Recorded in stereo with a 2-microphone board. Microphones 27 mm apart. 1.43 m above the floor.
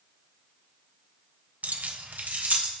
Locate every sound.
1.6 s keys jangling: 60° right (ahead or behind), 0.7 m; by 2.7 s 80° right, 1.8 m